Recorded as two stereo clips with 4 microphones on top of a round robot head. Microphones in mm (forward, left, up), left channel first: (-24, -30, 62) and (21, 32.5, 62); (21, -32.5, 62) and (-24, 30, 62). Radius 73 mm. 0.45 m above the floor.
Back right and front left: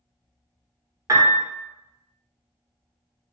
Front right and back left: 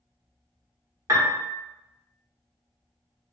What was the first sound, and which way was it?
A piano, 90° left.